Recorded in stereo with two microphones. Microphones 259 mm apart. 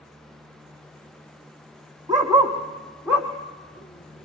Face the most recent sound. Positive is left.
turn(degrees=15)  # may be behind; listen again after turning